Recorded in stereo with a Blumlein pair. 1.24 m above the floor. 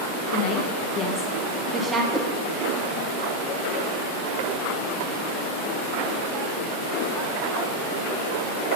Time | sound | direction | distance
0.3 | a woman speaking | 50° left | 0.9 m
2.1 | a whoosh | straight ahead | 0.7 m